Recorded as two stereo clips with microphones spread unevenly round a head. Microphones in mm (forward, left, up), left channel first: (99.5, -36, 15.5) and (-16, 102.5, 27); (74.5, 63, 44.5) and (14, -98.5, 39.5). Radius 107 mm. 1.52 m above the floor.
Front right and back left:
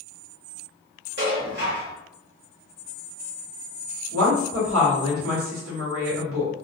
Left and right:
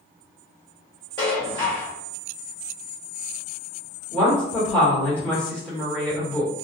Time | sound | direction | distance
1.2 | dishes clattering | 140° left | 1.0 m
4.1 | a woman speaking | 150° left | 1.3 m